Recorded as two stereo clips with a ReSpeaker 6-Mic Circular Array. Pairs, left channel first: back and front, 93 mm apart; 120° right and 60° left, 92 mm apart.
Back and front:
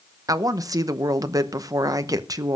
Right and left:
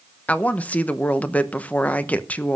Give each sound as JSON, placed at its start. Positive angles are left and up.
{"t": 0.3, "sound": "a woman speaking", "azimuth_deg": -45, "distance_m": 0.9}